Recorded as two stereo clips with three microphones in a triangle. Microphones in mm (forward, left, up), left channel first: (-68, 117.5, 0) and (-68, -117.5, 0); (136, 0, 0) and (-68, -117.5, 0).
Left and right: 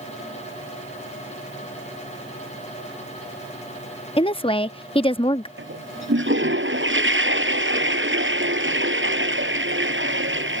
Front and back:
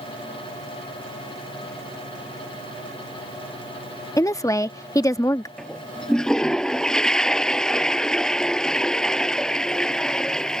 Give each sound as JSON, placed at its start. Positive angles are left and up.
{"t": 4.2, "sound": "a woman speaking", "azimuth_deg": 80}
{"t": 5.6, "sound": "a toilet flushing", "azimuth_deg": -55}